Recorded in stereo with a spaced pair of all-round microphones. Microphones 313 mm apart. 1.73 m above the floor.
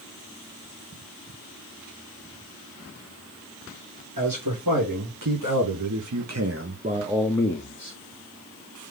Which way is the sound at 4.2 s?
85° right.